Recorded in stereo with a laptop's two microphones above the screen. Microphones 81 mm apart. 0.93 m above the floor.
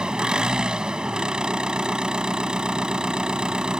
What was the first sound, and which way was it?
An engine running, 10° right (ahead or behind).